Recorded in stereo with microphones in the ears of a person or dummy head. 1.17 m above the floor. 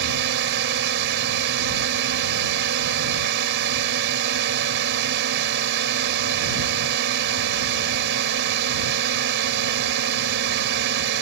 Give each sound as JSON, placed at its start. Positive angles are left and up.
{"t": 0.0, "sound": "a drone", "side_deg": -65}